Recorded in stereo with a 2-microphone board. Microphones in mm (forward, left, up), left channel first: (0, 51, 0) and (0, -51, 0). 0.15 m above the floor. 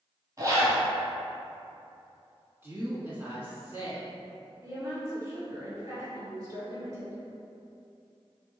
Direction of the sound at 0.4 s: 35° right (ahead or behind).